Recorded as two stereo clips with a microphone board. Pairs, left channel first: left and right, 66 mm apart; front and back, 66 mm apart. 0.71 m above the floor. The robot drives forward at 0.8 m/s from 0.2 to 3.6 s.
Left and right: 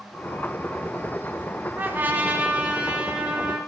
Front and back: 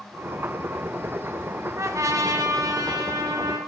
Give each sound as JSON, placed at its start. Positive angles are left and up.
{"t": 1.8, "sound": "a trumpet", "azimuth_deg": -145, "distance_m": 1.0}